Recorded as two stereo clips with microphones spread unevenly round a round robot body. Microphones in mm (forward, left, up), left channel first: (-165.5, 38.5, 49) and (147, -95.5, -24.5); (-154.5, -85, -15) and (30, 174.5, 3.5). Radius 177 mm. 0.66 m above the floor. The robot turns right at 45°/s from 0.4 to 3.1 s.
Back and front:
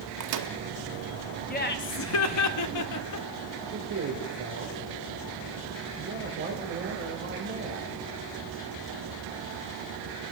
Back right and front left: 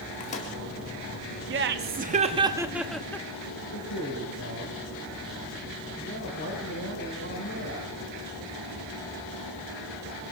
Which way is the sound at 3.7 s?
80° right.